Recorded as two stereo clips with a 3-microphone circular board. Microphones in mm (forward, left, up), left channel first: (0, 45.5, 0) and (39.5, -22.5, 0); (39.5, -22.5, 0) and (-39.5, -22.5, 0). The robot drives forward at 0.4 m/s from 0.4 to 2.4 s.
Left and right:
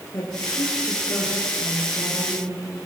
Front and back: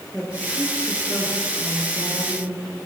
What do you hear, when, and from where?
0.1 s a woman speaking: 70° left, 7 m; by 2.8 s 80° left, 7 m